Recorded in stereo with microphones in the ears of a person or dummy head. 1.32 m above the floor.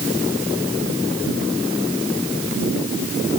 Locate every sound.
Only background noise.